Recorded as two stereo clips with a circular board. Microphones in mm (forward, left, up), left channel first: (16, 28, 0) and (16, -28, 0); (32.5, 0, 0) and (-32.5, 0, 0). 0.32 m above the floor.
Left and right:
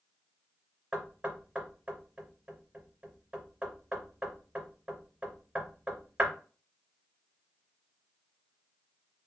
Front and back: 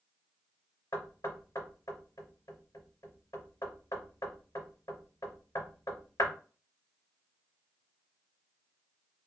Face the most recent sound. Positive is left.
turn(degrees=-20)